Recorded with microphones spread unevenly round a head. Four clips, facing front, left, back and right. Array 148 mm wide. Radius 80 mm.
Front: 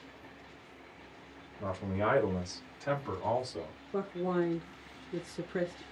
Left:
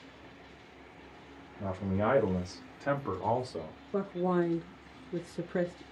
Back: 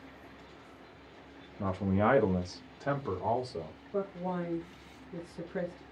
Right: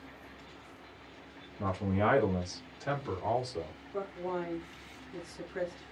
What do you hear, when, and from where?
1.6 s a man speaking: 165° right, 0.7 m; by 3.8 s 115° left, 1.1 m
3.9 s a woman speaking: 60° left, 0.6 m